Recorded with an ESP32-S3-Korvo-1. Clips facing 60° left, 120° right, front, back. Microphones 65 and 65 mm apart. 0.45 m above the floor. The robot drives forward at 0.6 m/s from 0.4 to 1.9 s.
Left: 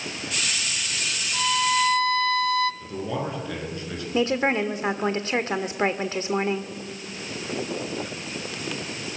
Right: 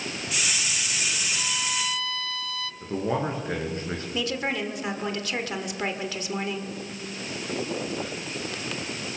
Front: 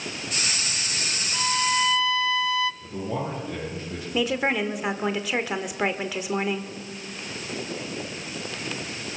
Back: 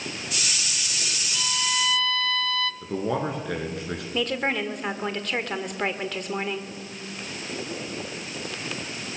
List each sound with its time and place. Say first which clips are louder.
1.3 s a violin: left 8 dB, front 5 dB; 45° left, 0.7 m; by 2.7 s 75° left, 0.6 m
2.8 s a man speaking: right 2 dB, back 3 dB; 175° right, 6 m
4.1 s a woman speaking: left 7 dB, front 2 dB; 75° left, 1.4 m